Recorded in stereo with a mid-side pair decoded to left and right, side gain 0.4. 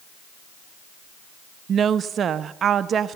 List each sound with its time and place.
1.7 s a woman speaking: 60° right, 0.8 m